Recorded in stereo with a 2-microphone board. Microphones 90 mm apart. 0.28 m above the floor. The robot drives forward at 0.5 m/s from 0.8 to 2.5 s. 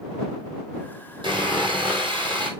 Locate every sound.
1.2 s sawing: 60° right (ahead or behind), 2.5 m; by 2.5 s 75° right (ahead or behind), 2.5 m